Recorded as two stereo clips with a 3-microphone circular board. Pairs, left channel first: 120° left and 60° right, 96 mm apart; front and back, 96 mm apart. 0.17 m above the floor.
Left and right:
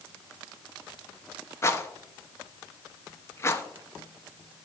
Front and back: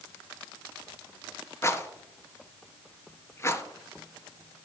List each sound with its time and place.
1.6 s a rattle: 60° left, 0.9 m